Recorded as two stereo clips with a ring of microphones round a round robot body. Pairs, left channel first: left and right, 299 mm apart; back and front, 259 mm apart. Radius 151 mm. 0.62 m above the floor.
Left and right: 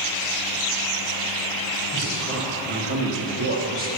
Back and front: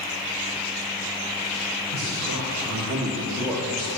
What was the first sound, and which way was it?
A man speaking, 35° right.